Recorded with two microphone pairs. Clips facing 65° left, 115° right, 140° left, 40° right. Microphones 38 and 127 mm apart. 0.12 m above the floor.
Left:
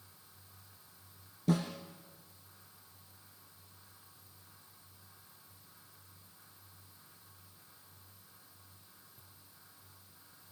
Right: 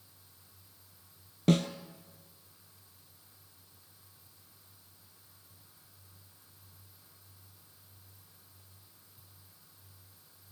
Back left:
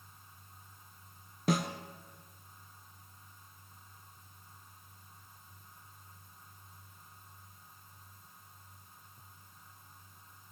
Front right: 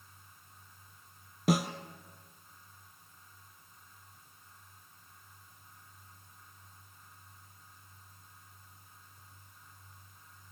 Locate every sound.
1.5 s a snare drum: 130° right, 1.9 m